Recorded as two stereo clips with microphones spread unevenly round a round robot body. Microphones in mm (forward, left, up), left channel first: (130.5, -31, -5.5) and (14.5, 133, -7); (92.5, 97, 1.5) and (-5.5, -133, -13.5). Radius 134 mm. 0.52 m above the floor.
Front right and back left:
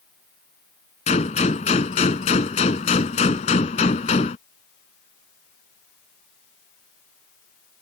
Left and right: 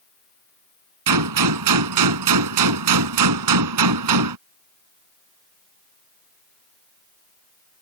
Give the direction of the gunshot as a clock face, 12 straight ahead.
4 o'clock.